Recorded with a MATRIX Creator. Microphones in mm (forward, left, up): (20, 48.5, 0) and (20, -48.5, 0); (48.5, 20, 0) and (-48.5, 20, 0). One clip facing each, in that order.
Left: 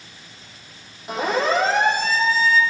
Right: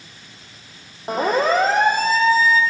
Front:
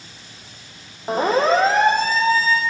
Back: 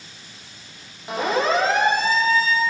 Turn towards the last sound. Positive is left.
turn(degrees=-50)